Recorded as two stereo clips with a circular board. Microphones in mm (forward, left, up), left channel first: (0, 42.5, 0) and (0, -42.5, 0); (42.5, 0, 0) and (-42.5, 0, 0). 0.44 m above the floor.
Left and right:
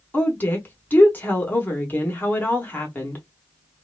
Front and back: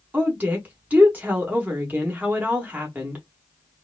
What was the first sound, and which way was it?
A woman speaking, 130° left.